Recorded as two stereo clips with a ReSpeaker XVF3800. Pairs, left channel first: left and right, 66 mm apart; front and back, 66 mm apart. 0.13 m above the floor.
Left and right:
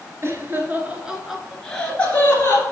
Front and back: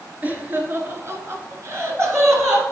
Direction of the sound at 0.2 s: 120° right.